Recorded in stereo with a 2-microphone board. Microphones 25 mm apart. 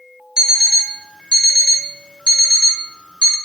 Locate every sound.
0.4 s an alarm clock: 30° right (ahead or behind), 0.6 m